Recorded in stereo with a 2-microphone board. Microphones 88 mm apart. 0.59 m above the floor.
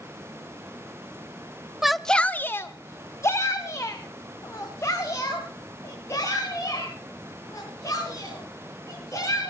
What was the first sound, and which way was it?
A shout, 5° right (ahead or behind).